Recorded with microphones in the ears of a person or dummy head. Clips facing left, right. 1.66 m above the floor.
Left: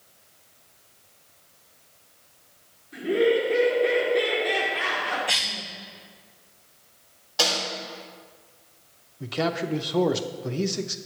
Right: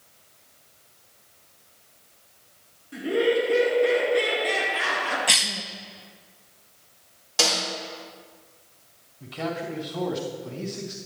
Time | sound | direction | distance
2.9 | laughter | 70° right (ahead or behind) | 3.5 m
5.3 | a cough | 50° right (ahead or behind) | 0.9 m
7.4 | a snare drum | 45° right (ahead or behind) | 3.5 m
9.2 | a man speaking | 70° left (ahead or behind) | 0.6 m